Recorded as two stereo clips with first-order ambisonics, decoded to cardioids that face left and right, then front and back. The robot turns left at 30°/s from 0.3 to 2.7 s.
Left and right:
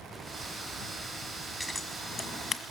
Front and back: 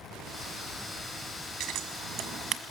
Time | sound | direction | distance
1.6 | scissors | 170° left | 1.5 m